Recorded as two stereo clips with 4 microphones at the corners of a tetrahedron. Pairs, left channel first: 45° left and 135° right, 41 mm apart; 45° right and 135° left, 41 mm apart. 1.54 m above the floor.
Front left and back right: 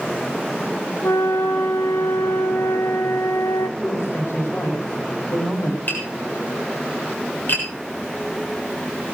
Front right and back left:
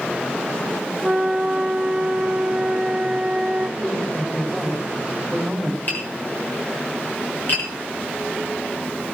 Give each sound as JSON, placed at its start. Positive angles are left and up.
{"t": 1.0, "sound": "a flute", "azimuth_deg": 65, "distance_m": 1.3}
{"t": 3.8, "sound": "a woman speaking", "azimuth_deg": 35, "distance_m": 5.5}
{"t": 5.9, "sound": "tapping", "azimuth_deg": 0, "distance_m": 7.0}